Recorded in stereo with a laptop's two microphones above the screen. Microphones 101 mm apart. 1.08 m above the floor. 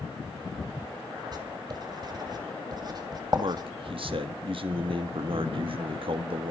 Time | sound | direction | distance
1.3 | writing | 45° right (ahead or behind) | 2 m
3.4 | a man speaking | 60° right (ahead or behind) | 1.6 m